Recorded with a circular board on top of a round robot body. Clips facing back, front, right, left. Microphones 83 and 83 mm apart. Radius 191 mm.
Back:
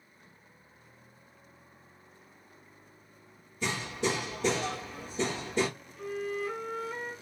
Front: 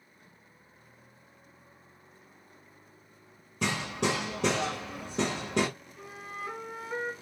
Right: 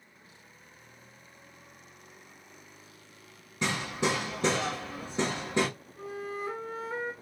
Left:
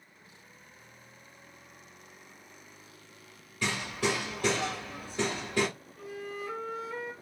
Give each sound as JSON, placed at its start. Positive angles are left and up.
{"t": 3.6, "sound": "hammering", "azimuth_deg": -20, "distance_m": 1.3}
{"t": 6.0, "sound": "a flute", "azimuth_deg": -60, "distance_m": 1.3}